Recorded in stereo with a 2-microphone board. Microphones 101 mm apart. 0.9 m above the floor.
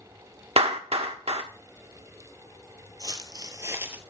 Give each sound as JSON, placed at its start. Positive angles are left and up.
{"t": 0.6, "sound": "a clap", "side_deg": -80, "distance_m": 1.2}
{"t": 3.0, "sound": "footsteps", "side_deg": -45, "distance_m": 1.2}